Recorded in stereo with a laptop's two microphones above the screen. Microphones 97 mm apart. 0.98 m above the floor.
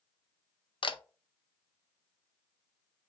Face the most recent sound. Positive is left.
turn(degrees=60)  # may be behind; listen again after turning